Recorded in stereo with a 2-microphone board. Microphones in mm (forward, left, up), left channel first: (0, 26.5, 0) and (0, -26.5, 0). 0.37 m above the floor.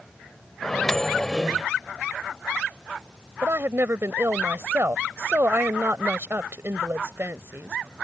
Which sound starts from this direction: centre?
A microwave, at 0.6 s.